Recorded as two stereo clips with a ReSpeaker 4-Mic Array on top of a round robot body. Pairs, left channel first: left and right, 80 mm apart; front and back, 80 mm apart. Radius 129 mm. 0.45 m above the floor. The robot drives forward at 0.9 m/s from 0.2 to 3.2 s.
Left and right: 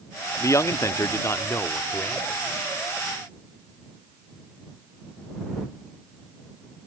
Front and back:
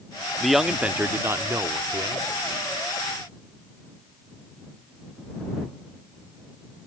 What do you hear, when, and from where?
0.4 s a man speaking: 85° left; by 2.4 s 155° left